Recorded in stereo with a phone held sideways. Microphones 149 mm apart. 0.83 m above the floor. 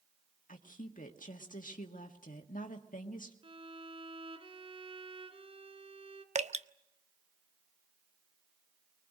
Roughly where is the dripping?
Right.